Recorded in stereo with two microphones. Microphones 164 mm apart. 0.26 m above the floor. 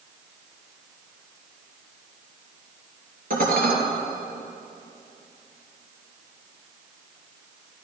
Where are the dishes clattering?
60° right (ahead or behind), 3 m.